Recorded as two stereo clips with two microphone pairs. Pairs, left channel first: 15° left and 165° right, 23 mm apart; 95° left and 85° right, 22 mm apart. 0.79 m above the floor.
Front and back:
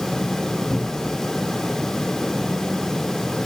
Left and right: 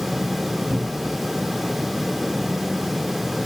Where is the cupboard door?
55° right, 1.2 m.